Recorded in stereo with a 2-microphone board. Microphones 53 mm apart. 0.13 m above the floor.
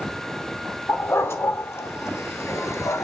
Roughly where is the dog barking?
Left.